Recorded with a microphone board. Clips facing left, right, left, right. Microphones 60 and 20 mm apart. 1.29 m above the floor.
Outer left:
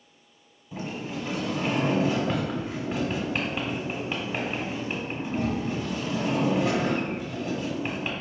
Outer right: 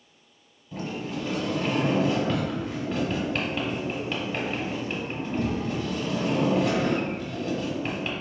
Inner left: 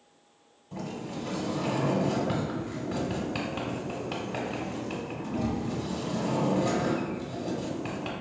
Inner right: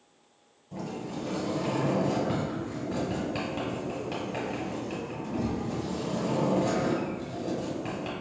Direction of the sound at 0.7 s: 10° left (ahead or behind).